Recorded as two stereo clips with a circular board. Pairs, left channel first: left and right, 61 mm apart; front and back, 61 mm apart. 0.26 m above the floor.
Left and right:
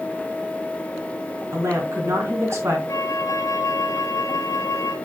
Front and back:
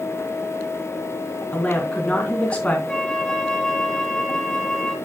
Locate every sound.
1.5 s a woman speaking: 70° right, 3 m
2.9 s a flute: 80° left, 1.1 m